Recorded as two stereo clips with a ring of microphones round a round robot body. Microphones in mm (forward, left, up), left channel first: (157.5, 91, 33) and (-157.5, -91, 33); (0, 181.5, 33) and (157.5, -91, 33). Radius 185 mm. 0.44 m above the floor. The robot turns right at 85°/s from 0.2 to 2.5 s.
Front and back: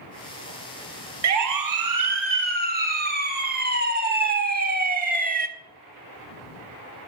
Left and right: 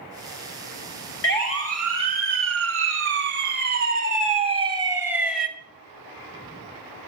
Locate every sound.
1.2 s a siren: 165° left, 3 m; by 5.5 s 150° right, 1.8 m